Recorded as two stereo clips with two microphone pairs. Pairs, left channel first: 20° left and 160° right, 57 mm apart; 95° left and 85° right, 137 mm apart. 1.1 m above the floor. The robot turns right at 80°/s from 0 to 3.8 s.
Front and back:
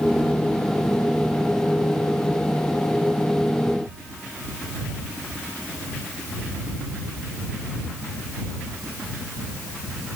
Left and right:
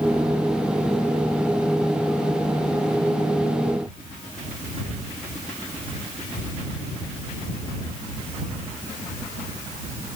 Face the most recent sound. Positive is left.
No sound to turn to.